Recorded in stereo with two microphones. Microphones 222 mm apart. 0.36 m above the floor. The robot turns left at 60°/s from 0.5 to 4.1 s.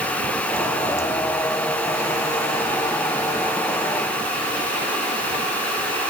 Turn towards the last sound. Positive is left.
No sound to turn to.